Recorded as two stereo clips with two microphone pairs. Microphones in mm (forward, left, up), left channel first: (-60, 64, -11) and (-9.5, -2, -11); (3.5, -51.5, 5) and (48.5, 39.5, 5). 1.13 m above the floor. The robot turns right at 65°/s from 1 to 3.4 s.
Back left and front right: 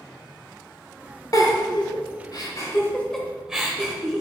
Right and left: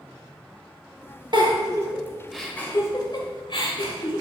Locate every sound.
1.3 s a giggle: 90° left, 1.4 m; by 4.2 s 135° right, 1.4 m